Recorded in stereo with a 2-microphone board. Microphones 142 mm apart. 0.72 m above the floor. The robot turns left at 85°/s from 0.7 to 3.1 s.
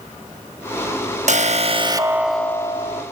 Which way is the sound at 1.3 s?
90° right.